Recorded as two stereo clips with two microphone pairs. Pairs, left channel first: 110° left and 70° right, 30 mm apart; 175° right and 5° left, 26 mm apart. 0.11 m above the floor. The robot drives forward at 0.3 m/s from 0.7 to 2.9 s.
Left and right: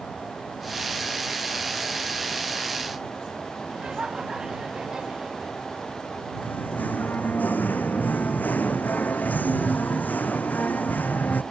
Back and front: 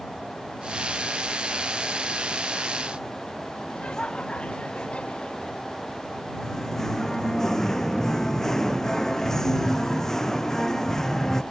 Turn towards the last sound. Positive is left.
turn(degrees=110)